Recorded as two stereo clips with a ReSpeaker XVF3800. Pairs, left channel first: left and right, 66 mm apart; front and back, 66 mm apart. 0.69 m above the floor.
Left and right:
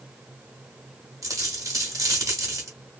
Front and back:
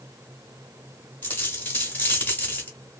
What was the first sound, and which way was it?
A dropped coin, 60° right.